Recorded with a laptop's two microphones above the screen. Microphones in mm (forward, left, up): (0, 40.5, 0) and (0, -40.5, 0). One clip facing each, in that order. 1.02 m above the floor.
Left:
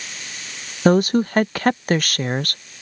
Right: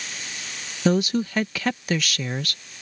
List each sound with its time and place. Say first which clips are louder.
0.8 s a woman speaking: left 6 dB; 45° left (ahead or behind)